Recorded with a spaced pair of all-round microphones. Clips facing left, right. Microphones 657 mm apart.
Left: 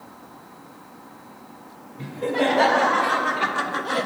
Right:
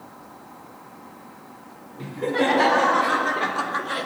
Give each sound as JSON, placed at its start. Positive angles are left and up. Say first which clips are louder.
{"t": 2.0, "sound": "laughter", "louder": "even", "side_deg": 15, "distance_m": 3.0}